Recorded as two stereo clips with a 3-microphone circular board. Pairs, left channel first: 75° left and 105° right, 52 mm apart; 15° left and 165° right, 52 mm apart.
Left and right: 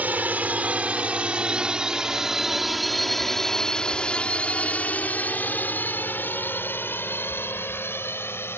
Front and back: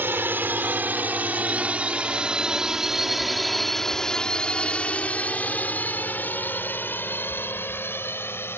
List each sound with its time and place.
0.0 s a drone: 145° right; by 8.6 s 45° left